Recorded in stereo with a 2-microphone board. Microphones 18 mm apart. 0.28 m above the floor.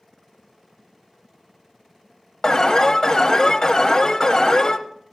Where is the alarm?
35° left (ahead or behind), 0.9 m.